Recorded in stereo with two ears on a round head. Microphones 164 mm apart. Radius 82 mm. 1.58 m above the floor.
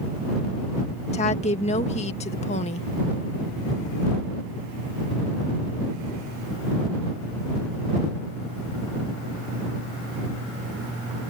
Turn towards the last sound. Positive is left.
turn(degrees=35)  # may be behind; listen again after turning